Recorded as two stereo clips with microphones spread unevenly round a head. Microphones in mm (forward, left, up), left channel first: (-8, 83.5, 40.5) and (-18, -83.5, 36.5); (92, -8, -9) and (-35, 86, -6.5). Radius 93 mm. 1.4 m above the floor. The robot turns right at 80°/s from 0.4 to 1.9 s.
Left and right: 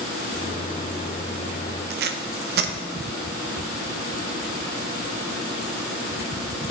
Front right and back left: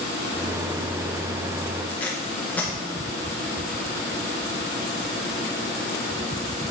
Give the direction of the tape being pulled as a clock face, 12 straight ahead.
4 o'clock.